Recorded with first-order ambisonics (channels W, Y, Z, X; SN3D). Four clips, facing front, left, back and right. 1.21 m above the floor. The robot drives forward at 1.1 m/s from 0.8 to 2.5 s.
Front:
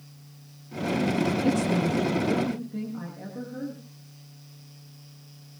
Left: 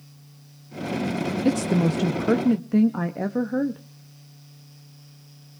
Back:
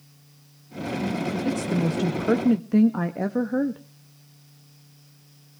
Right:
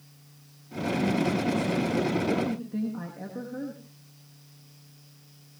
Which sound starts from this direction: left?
A woman speaking, at 1.4 s.